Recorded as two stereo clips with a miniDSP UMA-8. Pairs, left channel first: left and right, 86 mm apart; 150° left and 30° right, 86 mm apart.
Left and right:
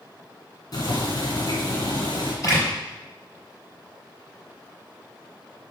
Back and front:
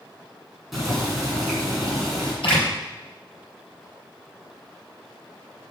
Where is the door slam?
140° left, 3.5 m.